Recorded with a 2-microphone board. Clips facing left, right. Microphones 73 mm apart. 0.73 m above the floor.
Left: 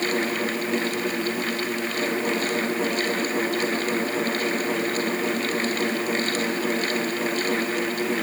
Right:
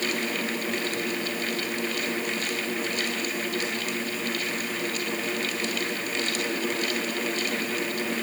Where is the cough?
No cough in this recording.